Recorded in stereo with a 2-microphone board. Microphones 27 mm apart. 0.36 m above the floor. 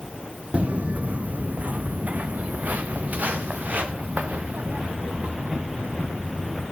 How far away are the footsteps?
About 0.7 m.